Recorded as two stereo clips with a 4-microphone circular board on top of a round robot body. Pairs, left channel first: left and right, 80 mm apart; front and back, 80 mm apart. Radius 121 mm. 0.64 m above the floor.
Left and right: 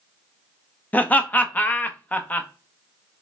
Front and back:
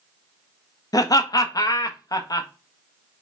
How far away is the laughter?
About 0.7 m.